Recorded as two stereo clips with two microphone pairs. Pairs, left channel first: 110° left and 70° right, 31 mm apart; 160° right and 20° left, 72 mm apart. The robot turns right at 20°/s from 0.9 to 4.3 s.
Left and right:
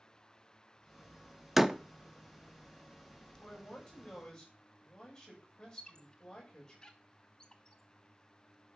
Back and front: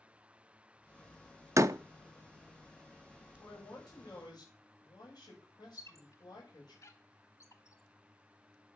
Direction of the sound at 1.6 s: 10° left.